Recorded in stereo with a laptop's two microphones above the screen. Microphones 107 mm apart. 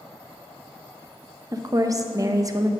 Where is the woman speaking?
35° right (ahead or behind), 0.7 m.